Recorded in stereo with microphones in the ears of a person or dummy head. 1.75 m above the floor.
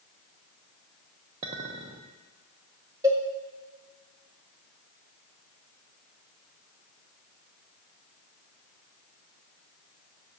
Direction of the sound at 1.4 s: 25° right (ahead or behind).